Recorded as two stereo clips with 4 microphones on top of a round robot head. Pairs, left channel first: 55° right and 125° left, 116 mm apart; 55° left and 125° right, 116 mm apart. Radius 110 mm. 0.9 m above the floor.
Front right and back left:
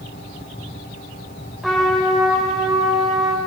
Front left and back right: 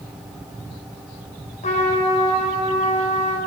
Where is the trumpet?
35° left, 3.5 m.